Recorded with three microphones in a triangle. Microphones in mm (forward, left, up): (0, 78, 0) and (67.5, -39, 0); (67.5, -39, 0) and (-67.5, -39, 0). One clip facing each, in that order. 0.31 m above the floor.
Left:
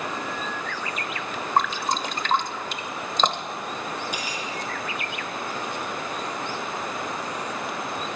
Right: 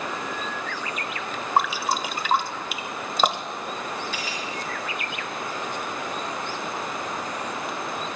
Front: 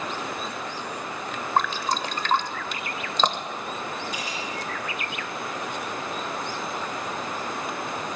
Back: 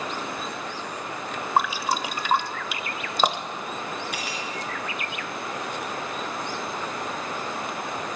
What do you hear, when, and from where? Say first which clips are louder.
1.6 s dripping: right 1 dB, back 1 dB; 120° right, 0.7 m
4.1 s cutlery clinking: even, even; 170° right, 3 m